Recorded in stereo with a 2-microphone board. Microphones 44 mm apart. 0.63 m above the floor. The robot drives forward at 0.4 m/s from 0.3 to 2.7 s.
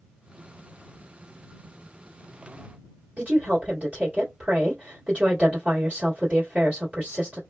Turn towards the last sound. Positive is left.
turn(degrees=-30)  # may be behind; listen again after turning